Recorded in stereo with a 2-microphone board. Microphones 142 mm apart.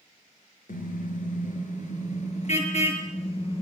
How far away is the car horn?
About 5 m.